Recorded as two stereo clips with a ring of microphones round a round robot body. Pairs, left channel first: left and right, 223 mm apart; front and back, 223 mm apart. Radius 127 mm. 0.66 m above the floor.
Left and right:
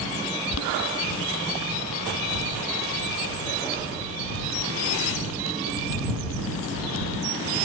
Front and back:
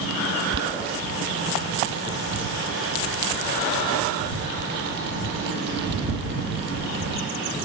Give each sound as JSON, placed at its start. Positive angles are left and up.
{"t": 0.5, "sound": "boiling", "azimuth_deg": 130}